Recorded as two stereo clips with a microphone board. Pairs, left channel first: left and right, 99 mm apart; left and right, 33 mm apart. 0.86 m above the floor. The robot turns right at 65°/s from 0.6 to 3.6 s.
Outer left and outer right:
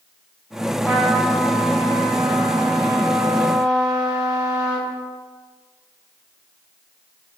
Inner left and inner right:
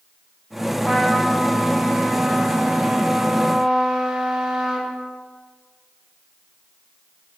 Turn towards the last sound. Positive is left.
turn(degrees=-10)